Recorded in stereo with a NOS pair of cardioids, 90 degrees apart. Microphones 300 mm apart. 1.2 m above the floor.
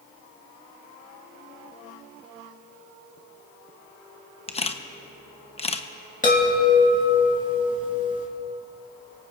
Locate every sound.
4.5 s a camera shutter: 20° left, 0.9 m
6.2 s a chime: 25° left, 3.5 m